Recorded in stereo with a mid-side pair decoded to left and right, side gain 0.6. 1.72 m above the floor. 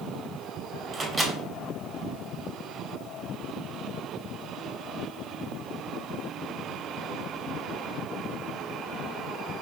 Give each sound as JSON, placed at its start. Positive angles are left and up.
{"t": 0.9, "sound": "a microwave", "azimuth_deg": -25, "distance_m": 1.0}